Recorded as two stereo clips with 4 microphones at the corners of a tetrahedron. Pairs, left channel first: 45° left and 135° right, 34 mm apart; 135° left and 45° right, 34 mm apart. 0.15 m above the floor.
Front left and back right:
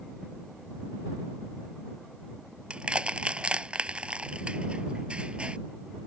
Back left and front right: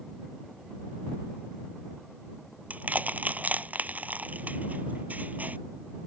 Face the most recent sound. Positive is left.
turn(degrees=-80)